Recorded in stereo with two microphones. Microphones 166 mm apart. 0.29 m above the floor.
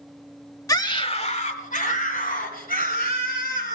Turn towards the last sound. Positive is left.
turn(degrees=65)  # may be behind; listen again after turning